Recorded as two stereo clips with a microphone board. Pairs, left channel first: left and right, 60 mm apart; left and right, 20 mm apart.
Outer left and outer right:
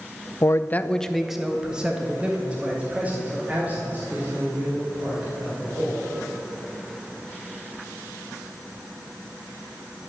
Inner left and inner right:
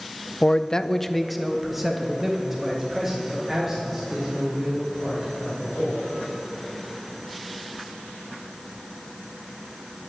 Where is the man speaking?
60° left (ahead or behind), 0.5 m; by 6.1 s 30° right (ahead or behind), 5.5 m.